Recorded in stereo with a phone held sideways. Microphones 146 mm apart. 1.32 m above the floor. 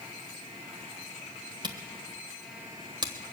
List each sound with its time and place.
1.6 s a camera shutter: 30° right (ahead or behind), 1.3 m